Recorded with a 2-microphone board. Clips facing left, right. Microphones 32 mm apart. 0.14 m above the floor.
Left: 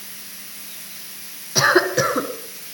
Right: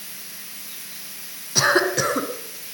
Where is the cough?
10° left (ahead or behind), 1.2 m.